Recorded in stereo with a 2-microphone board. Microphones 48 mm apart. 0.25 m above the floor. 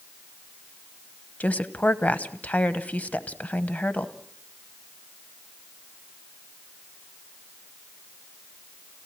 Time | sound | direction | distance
1.4 | a woman speaking | 35° left (ahead or behind) | 1.1 m